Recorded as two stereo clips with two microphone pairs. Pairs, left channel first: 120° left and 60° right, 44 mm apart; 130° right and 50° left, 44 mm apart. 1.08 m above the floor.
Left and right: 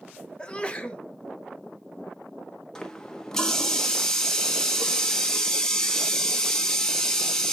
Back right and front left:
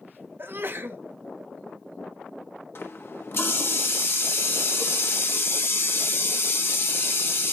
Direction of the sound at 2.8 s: 160° right.